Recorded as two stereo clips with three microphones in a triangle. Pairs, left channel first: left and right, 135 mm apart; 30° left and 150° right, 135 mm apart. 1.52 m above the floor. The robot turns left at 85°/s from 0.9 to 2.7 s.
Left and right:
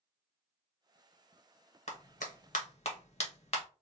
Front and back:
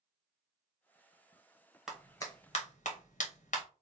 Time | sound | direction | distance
1.9 | a clap | 125° left | 0.9 m